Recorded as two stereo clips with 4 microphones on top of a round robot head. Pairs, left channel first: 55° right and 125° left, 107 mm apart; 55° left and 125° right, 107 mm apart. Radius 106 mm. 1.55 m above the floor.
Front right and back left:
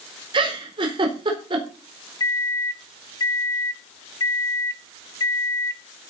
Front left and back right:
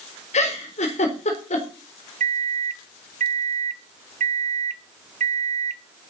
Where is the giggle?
75° left, 4 m.